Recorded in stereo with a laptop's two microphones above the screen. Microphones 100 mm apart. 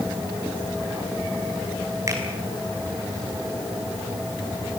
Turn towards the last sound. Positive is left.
turn(degrees=-30)  # may be behind; listen again after turning